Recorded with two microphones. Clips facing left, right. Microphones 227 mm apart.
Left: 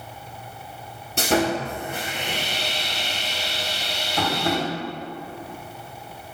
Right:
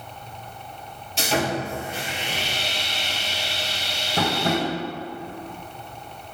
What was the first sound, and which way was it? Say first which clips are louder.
Sawing: left 3 dB; 55° left (ahead or behind).